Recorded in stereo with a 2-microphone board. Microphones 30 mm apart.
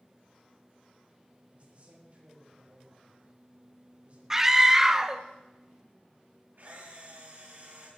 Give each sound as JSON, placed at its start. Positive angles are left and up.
{"t": 1.5, "sound": "a man speaking", "side_deg": -40, "distance_m": 6.0}
{"t": 4.3, "sound": "a scream", "side_deg": -15, "distance_m": 1.2}
{"t": 6.6, "sound": "a camera shutter", "side_deg": -60, "distance_m": 8.0}